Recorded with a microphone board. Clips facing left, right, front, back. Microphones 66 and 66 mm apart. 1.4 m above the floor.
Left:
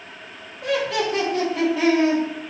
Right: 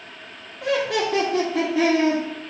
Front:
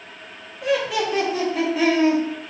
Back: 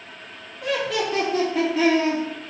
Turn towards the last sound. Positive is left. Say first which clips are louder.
# even, front 2 dB
turn(degrees=-85)